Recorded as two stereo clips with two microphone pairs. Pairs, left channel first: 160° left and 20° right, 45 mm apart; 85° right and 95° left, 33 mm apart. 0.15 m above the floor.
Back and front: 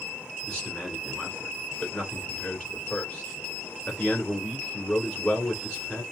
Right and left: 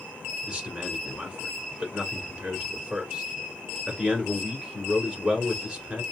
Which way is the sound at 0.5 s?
130° left.